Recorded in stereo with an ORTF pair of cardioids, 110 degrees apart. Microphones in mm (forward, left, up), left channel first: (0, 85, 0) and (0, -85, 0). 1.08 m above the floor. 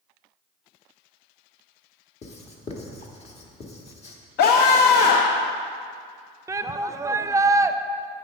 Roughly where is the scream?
Ahead left.